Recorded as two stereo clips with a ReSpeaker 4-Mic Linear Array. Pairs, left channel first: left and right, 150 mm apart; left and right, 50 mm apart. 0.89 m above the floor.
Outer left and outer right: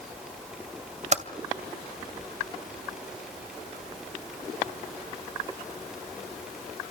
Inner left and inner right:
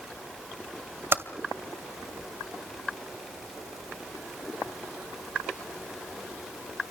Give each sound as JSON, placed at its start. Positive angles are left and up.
{"t": 1.1, "sound": "typing on a keyboard", "side_deg": -50, "distance_m": 2.5}